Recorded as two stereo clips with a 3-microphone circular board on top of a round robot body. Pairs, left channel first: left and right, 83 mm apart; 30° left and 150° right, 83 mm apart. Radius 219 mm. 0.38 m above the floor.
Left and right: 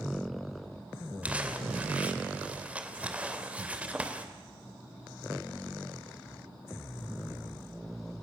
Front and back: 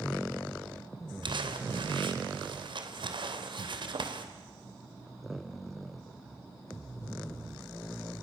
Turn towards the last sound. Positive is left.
turn(degrees=-165)